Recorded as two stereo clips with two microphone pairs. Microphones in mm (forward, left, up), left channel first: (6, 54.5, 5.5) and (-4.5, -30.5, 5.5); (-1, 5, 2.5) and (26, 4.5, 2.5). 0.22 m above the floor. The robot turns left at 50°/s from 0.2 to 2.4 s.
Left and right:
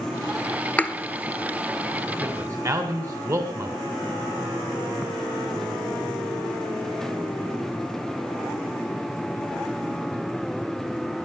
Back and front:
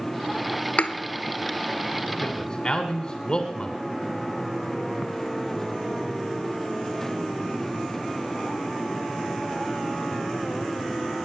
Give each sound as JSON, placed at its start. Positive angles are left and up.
{"t": 0.8, "sound": "a thud", "azimuth_deg": 155, "distance_m": 1.2}
{"t": 2.2, "sound": "a man speaking", "azimuth_deg": -115, "distance_m": 2.0}